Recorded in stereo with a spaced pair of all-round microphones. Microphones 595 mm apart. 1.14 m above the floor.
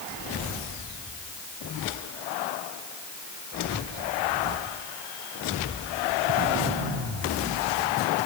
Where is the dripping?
I don't hear dripping.